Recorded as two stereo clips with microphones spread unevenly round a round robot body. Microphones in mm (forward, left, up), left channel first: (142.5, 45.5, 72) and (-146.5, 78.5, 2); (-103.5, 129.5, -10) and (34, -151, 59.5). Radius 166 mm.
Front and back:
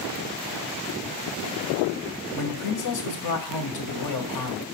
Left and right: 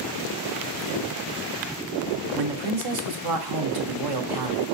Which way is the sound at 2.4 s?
40° right.